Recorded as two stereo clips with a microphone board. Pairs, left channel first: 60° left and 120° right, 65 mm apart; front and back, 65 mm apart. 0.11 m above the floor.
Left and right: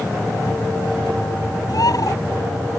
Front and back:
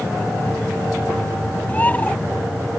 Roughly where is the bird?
Ahead left.